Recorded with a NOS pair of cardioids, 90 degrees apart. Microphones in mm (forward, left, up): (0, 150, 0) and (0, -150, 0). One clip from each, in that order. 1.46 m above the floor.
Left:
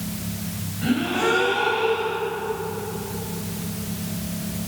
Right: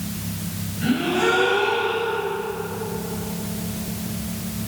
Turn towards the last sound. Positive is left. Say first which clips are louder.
# right 2 dB
turn(degrees=-5)